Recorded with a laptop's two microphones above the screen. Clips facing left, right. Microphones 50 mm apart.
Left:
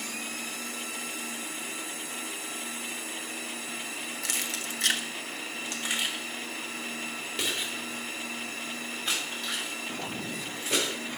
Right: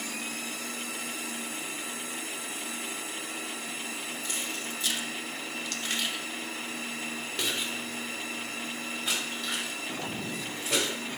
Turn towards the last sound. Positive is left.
turn(degrees=-5)  # may be behind; listen again after turning